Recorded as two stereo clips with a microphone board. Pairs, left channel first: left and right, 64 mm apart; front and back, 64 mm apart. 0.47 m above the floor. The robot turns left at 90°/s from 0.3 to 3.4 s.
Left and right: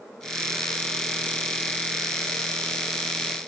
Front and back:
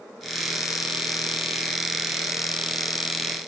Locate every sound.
Only background noise.